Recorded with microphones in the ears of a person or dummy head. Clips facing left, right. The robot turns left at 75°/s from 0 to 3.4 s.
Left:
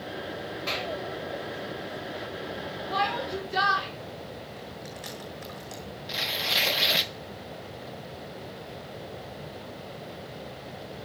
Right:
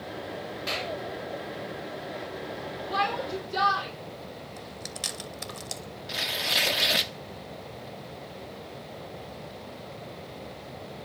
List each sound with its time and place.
0.7 s a clap: 10° right (ahead or behind), 3.5 m; by 0.9 s 30° right (ahead or behind), 3.5 m
2.9 s a shout: 175° right, 4.5 m; by 3.9 s 150° left, 4.5 m
4.6 s chewing: 40° right (ahead or behind), 1.1 m
6.1 s tearing paper: 5° right (ahead or behind), 0.6 m